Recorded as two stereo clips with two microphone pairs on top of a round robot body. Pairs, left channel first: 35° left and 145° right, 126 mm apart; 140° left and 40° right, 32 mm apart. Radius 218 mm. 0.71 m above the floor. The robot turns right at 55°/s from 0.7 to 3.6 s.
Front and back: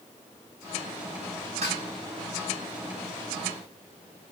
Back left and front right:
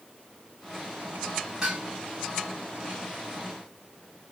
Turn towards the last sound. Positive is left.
turn(degrees=0)